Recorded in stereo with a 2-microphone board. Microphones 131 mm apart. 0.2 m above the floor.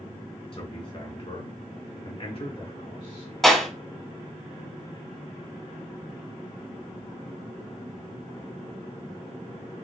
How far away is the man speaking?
About 1.7 m.